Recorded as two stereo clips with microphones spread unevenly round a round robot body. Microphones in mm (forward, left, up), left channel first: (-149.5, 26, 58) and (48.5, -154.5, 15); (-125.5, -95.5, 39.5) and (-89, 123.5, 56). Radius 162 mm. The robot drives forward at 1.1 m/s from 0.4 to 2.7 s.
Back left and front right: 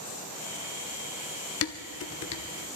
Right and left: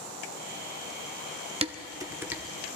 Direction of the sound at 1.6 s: 140° left.